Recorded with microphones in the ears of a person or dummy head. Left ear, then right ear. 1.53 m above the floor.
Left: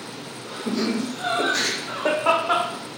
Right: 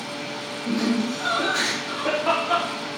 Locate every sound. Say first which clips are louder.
0.7 s laughter: even; 70° left (ahead or behind), 2 m; by 2.7 s 50° left (ahead or behind), 0.8 m